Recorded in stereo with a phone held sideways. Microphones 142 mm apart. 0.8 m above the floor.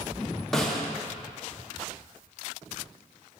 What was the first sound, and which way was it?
A snare drum, 5° left (ahead or behind).